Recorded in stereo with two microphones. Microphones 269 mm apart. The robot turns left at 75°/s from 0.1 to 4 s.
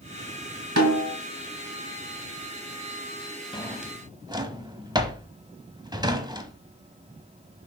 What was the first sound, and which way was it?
A snare drum, 70° right (ahead or behind).